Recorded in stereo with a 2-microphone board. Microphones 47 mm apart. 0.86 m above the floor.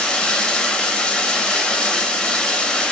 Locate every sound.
0.0 s running water: 20° left (ahead or behind), 0.7 m